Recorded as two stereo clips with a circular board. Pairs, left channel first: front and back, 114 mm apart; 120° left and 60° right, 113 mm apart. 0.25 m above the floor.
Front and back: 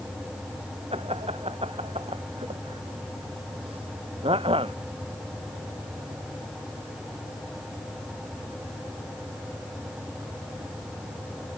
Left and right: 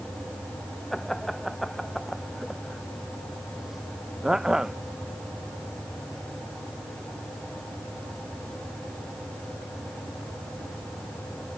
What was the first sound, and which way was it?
Laughter, 155° right.